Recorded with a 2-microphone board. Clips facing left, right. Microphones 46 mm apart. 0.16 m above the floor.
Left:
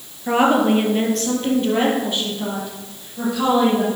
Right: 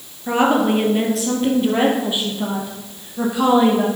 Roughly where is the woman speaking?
Centre.